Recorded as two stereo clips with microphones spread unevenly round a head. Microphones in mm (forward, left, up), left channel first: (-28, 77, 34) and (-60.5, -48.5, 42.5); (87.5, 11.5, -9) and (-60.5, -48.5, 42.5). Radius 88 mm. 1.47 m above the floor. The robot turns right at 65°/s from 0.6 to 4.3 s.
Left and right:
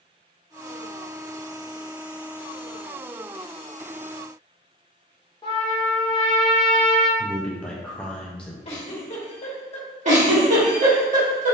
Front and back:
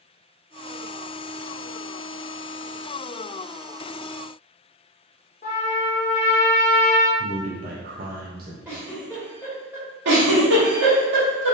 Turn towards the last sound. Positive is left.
turn(degrees=-140)